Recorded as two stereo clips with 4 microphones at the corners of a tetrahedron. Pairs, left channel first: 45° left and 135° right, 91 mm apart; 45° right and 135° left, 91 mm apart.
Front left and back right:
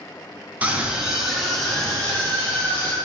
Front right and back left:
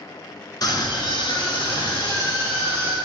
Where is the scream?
65° right, 1.6 m; by 3.0 s 25° right, 3 m.